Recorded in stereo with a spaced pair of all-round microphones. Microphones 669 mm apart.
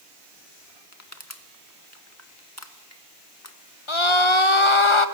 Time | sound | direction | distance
0.9 | crushing | 25° left (ahead or behind) | 1.6 m
3.9 | a scream | 45° left (ahead or behind) | 1.7 m